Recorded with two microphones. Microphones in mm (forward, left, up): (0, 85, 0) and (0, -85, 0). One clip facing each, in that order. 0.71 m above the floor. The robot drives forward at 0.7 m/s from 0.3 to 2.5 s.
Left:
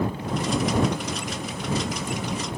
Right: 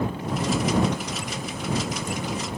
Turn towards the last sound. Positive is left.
No sound to turn to.